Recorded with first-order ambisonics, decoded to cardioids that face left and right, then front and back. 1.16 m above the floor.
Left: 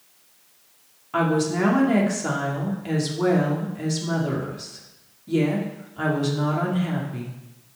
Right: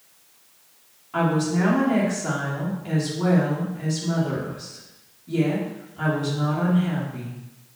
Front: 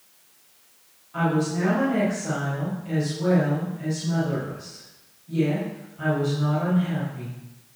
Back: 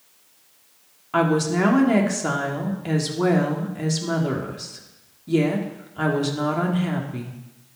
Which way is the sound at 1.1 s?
160° left.